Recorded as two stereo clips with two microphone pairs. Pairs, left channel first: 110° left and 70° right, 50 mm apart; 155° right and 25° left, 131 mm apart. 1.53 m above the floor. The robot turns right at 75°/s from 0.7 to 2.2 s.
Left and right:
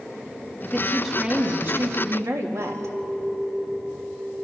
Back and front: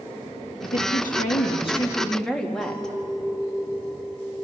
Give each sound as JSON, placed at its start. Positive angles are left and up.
{"t": 0.6, "sound": "a woman speaking", "azimuth_deg": 175, "distance_m": 2.5}
{"t": 2.6, "sound": "a clink", "azimuth_deg": -95, "distance_m": 4.5}